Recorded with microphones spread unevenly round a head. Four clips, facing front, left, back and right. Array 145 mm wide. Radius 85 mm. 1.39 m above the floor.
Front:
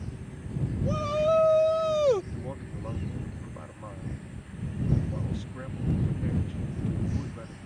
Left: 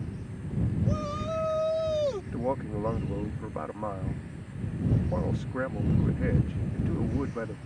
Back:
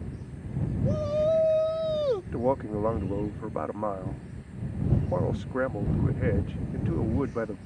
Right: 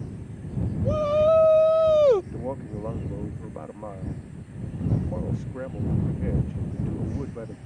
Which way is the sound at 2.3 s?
175° right.